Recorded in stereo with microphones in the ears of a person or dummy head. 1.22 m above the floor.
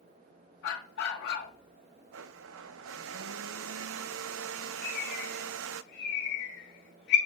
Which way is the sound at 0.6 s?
60° left (ahead or behind).